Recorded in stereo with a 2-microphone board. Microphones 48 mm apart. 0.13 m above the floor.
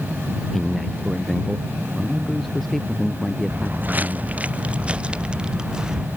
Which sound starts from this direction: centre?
A man speaking, at 0.5 s.